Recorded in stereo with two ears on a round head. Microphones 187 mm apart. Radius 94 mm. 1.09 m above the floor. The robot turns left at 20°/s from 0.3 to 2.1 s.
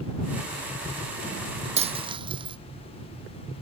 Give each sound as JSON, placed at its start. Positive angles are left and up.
{"t": 1.8, "sound": "a dropped coin", "side_deg": -30}